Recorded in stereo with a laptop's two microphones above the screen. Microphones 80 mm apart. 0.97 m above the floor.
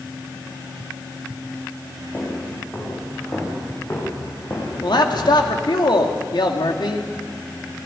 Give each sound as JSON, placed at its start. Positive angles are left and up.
{"t": 2.1, "sound": "footsteps", "side_deg": 30, "distance_m": 6.5}
{"t": 4.8, "sound": "a man speaking", "side_deg": 70, "distance_m": 2.0}